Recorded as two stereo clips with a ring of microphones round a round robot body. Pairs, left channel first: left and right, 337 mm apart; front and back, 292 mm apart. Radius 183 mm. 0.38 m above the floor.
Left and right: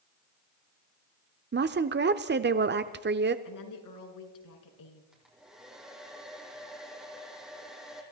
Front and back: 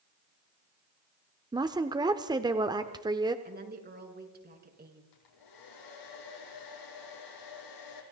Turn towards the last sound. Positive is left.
turn(degrees=0)